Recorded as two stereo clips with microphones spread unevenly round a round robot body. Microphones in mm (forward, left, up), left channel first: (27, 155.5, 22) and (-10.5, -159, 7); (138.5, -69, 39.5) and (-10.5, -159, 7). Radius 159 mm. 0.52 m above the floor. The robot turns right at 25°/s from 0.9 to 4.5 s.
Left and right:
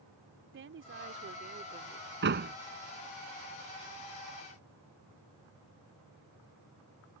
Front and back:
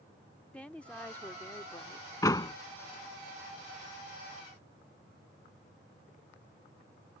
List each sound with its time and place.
0.5 s a woman speaking: 60° right; by 2.1 s 30° right
2.2 s a door slam: 40° right; by 2.5 s 30° right